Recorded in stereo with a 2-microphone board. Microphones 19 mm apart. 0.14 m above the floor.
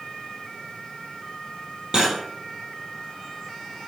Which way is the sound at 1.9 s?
40° right (ahead or behind).